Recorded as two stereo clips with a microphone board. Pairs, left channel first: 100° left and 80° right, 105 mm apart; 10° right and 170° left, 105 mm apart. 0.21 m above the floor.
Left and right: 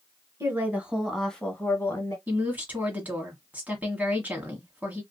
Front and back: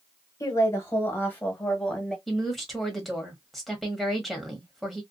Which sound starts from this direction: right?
A woman speaking, at 2.3 s.